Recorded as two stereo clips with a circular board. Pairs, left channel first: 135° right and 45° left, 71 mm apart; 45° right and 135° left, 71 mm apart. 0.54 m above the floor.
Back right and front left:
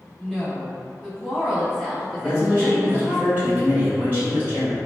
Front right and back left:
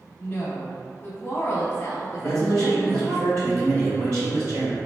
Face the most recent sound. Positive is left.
turn(degrees=105)